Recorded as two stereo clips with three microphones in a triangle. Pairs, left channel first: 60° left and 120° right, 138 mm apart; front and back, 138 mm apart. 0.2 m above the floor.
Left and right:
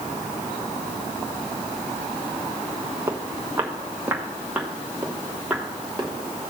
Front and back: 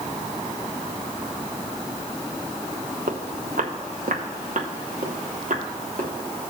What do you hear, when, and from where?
3.1 s footsteps: 170° left, 1.6 m; by 6.1 s 155° left, 3 m